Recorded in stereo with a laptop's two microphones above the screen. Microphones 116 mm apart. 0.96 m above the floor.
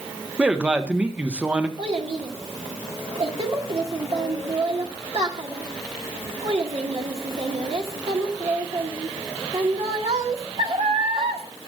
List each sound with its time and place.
0.4 s a man speaking: 10° right (ahead or behind), 1.1 m
1.8 s a child speaking: 55° right (ahead or behind), 2.0 m